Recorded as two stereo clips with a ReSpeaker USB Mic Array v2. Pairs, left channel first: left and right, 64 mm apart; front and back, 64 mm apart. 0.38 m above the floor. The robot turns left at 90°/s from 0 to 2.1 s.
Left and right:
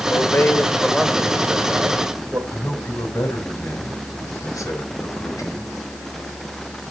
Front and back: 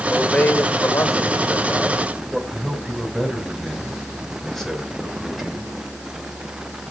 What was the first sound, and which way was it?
A man speaking, 85° left.